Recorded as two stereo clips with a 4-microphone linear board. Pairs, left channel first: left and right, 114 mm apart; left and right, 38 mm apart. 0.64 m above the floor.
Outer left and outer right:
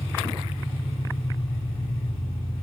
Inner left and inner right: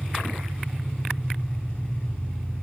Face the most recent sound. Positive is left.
turn(degrees=50)  # may be behind; listen again after turning